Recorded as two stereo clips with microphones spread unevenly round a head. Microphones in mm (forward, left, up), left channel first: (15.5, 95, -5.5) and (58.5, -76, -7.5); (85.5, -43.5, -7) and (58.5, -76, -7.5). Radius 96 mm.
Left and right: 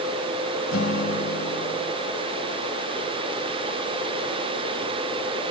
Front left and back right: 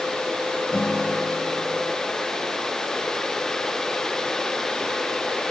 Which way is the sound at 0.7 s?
135° left.